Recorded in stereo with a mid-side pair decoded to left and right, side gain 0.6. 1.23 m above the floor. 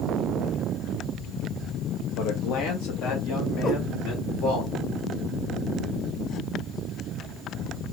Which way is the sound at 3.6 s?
55° left.